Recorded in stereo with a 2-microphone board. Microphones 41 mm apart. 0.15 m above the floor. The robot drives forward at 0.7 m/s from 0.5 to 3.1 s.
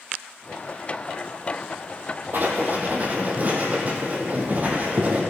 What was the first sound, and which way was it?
Writing, 55° right (ahead or behind).